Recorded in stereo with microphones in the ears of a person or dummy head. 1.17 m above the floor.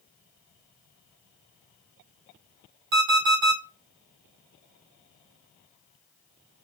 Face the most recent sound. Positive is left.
turn(degrees=-60)  # may be behind; listen again after turning